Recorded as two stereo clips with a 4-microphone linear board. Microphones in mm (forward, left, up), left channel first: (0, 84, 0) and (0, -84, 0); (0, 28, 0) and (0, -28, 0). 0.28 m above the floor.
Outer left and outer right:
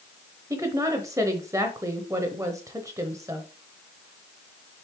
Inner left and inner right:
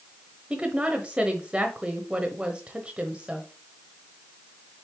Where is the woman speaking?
20° right (ahead or behind), 0.9 m.